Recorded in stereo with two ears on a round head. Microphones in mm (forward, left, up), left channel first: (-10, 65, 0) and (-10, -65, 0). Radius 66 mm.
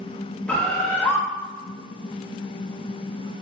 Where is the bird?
10° left (ahead or behind), 0.6 m.